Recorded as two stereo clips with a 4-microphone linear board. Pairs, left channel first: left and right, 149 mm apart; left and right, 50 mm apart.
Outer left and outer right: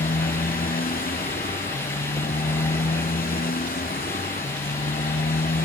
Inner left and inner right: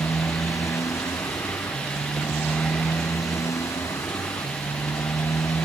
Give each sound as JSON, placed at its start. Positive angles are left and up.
{"t": 0.0, "sound": "a motorcycle", "side_deg": 85}